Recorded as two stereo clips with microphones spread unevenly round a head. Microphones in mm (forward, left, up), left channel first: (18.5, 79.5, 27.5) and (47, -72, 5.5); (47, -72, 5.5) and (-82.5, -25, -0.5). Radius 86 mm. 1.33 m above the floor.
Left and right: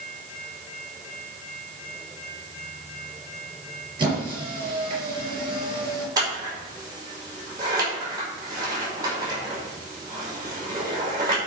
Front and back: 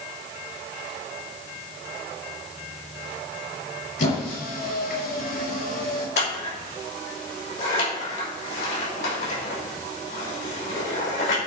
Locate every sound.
4.0 s a squeak: 20° right, 5.5 m
6.2 s scissors: 15° right, 5 m